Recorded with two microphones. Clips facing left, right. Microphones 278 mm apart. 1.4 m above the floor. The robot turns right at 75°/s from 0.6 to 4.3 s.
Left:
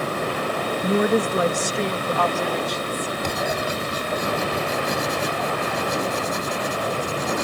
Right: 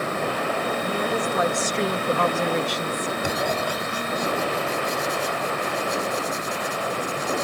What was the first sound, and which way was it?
A woman speaking, 105° left.